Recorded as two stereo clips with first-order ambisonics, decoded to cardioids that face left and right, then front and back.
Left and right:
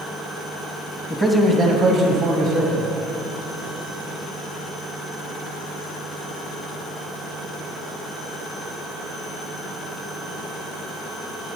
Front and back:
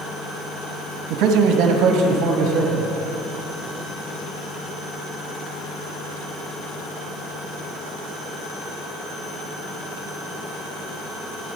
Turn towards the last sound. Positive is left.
turn(degrees=-130)